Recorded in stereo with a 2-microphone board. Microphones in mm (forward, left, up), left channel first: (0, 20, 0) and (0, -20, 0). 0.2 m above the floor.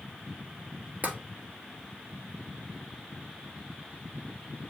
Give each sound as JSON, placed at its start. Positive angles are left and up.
{"t": 1.0, "sound": "tapping", "side_deg": -40, "distance_m": 1.0}